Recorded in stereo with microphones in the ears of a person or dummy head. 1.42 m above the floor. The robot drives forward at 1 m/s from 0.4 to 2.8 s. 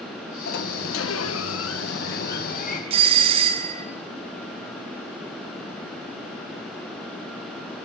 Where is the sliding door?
60° left (ahead or behind), 1.6 m; by 2.8 s 40° left (ahead or behind), 2 m.